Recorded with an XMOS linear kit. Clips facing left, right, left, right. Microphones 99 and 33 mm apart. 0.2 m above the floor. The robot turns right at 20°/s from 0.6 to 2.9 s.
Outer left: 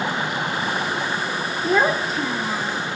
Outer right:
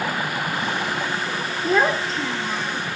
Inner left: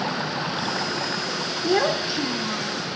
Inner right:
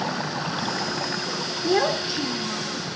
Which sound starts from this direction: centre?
A child speaking, at 1.6 s.